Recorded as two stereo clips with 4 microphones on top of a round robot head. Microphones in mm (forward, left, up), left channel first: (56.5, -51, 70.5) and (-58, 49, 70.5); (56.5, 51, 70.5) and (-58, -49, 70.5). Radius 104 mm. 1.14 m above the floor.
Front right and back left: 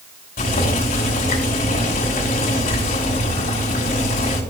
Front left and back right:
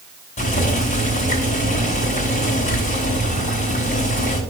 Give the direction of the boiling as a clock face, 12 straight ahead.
12 o'clock.